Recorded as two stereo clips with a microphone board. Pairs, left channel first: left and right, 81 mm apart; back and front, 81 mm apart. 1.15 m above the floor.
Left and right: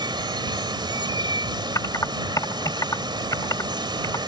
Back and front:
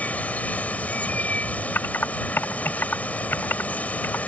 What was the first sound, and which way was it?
Running water, 110° right.